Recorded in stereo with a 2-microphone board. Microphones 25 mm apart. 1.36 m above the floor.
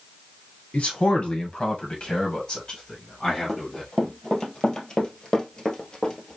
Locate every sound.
0.7 s a man speaking: 55° left (ahead or behind), 1.5 m; by 3.9 s 20° left (ahead or behind), 3 m
3.5 s running footsteps: 35° left (ahead or behind), 2 m; by 6.4 s 25° left (ahead or behind), 1.5 m